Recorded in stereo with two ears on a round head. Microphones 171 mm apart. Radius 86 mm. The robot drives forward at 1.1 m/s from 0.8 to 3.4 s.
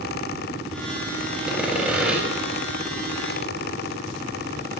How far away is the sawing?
About 6.5 m.